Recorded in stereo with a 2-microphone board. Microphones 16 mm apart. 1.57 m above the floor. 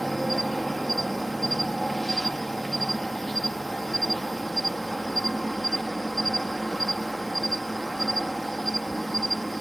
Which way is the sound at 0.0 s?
20° left (ahead or behind).